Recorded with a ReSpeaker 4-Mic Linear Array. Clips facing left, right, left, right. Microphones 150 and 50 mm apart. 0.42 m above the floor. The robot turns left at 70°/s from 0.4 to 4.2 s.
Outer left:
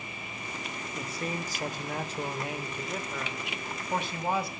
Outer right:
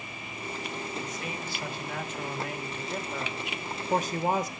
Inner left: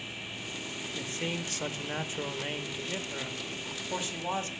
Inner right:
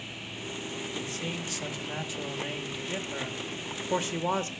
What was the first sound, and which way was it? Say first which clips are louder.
A man speaking: outer left 1 dB, inner left 3 dB; 140° left.